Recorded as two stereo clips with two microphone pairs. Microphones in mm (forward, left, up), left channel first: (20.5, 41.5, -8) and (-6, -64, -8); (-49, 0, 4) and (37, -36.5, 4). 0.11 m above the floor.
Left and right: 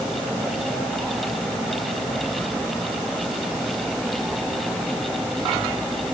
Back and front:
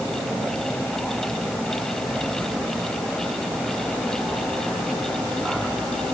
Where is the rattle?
No rattle in this recording.